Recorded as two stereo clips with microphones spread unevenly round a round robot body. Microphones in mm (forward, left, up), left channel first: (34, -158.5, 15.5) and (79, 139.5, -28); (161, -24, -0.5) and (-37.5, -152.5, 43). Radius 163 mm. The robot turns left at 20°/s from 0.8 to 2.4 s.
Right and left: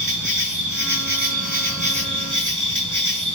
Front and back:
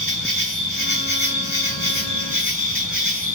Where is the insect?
50° left, 2.5 m; by 3.4 s 20° left, 2.5 m.